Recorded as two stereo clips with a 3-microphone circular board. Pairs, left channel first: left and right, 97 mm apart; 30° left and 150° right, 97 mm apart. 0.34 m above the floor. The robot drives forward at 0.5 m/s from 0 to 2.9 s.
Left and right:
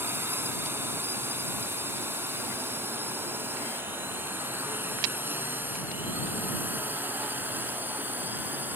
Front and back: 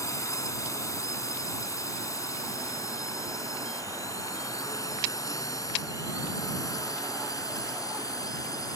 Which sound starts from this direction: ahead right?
A drone, at 0.0 s.